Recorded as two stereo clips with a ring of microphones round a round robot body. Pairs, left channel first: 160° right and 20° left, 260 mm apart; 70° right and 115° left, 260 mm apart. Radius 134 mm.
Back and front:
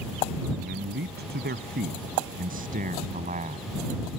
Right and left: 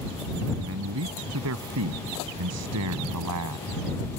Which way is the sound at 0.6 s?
75° left.